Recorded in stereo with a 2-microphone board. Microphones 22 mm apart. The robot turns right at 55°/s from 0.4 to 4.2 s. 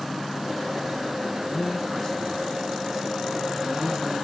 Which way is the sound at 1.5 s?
125° left.